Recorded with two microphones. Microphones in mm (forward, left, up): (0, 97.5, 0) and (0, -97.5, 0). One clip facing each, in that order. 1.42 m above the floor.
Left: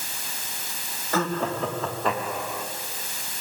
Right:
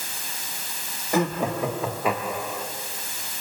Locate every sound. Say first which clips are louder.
1.1 s laughter: right 2 dB; 15° right (ahead or behind), 3.5 m; by 2.7 s 5° right (ahead or behind), 5 m